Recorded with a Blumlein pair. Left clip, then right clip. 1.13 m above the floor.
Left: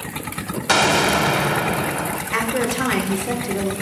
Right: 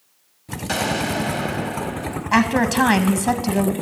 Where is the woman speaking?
65° right, 0.9 m.